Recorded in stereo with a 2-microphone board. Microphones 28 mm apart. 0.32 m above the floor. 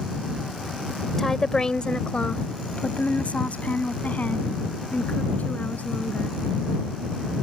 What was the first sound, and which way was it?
A woman speaking, 15° left (ahead or behind).